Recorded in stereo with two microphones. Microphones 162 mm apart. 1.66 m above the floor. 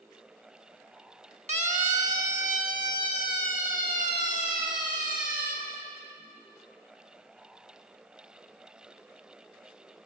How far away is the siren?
About 2 m.